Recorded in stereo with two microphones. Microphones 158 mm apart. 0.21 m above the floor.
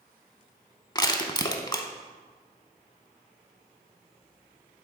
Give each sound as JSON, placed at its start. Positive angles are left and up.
{"t": 0.9, "sound": "crushing", "side_deg": 25, "distance_m": 0.6}